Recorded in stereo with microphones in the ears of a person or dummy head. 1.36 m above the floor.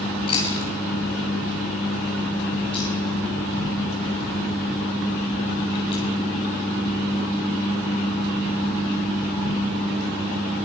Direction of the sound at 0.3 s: 30° left (ahead or behind).